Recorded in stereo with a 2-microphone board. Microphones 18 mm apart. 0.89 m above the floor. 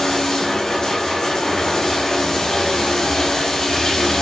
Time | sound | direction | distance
0.0 | running water | 25° left (ahead or behind) | 5 m